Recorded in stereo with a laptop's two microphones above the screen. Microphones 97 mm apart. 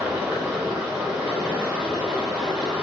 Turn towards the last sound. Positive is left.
turn(degrees=-5)  # may be behind; listen again after turning